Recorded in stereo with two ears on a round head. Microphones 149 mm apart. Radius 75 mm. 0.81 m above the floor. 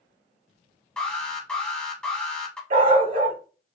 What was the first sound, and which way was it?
An alarm, 5° left (ahead or behind).